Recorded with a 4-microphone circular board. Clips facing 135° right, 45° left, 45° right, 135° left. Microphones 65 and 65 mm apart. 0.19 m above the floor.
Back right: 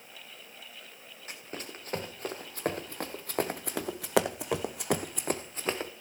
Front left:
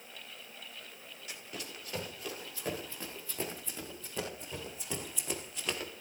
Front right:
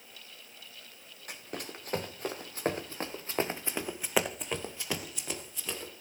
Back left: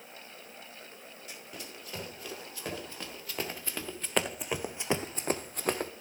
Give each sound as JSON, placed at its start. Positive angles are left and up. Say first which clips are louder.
{"t": 1.3, "sound": "running footsteps", "louder": "back right 4 dB, front right 6 dB", "azimuth_deg": -85, "distance_m": 2.5}